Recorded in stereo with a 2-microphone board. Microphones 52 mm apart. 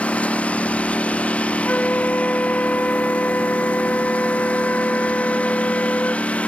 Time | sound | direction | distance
0.0 | a lawn mower | 25° left (ahead or behind) | ?
1.6 | a flute | 35° left (ahead or behind) | ?